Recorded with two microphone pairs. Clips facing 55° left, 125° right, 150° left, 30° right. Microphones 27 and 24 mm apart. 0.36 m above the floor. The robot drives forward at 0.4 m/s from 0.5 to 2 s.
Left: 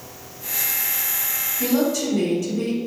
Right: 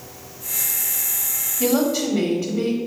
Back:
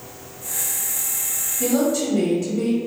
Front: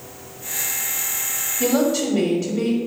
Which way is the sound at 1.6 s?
80° right.